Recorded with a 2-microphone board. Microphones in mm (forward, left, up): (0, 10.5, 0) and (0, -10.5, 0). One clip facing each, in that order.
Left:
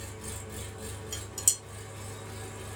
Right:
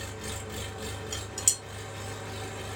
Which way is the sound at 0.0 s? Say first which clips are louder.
Right 4 dB; 45° right (ahead or behind).